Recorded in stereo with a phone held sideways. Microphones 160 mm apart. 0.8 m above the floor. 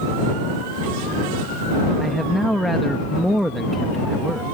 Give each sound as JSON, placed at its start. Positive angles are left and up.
{"t": 2.0, "sound": "a man speaking", "side_deg": 0}